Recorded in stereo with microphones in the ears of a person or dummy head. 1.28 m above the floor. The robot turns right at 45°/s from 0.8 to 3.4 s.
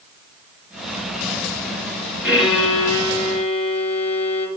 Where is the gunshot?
No gunshot in this recording.